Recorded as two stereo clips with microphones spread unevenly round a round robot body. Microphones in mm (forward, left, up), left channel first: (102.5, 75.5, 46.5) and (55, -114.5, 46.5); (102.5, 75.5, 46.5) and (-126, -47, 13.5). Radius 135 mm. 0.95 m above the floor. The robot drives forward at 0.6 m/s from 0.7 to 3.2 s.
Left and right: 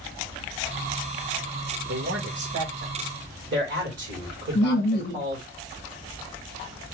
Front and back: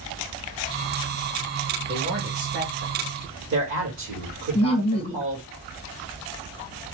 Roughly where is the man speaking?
Right.